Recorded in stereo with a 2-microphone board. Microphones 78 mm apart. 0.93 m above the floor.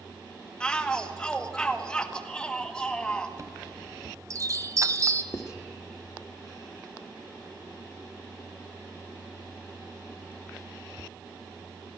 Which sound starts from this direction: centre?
A shout, at 0.6 s.